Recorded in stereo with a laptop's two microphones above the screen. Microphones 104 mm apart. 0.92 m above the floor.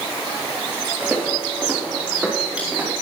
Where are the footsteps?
20° right (ahead or behind), 4 m; by 2.9 s 10° right (ahead or behind), 6 m.